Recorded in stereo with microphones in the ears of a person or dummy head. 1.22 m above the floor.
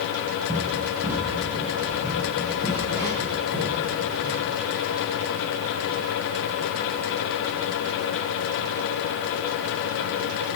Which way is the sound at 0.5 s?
20° right (ahead or behind).